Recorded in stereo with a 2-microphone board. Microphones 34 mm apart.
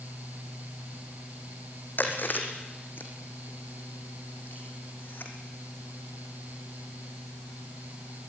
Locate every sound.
2.0 s chewing: 70° left (ahead or behind), 3.5 m